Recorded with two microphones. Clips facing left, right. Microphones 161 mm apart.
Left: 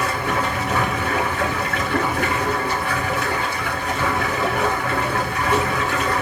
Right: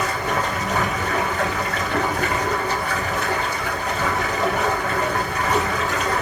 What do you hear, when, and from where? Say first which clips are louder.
0.0 s running water: left 1 dB; 75° left (ahead or behind), 1.8 m